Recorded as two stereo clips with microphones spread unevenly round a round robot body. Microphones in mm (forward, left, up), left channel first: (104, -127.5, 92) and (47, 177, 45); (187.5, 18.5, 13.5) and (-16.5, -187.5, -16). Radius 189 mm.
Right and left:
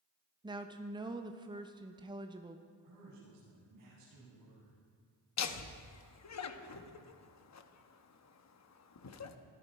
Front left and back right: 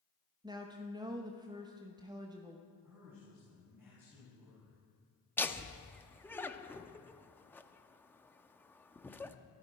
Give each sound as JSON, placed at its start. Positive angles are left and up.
{"t": 0.4, "sound": "a woman speaking", "azimuth_deg": 160, "distance_m": 0.8}
{"t": 2.8, "sound": "a man speaking", "azimuth_deg": 140, "distance_m": 7.5}
{"t": 5.4, "sound": "laughter", "azimuth_deg": -40, "distance_m": 1.4}